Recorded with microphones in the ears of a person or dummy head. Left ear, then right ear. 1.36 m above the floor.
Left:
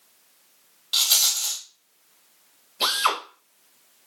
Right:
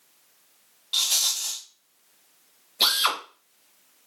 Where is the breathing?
No breathing in this recording.